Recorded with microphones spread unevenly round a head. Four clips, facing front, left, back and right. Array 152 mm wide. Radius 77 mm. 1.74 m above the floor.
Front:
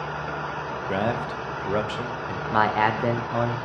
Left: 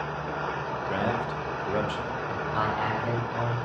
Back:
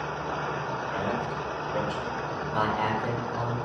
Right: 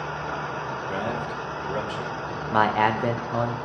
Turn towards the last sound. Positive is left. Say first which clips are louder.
# right 8 dB, front 6 dB
turn(degrees=-45)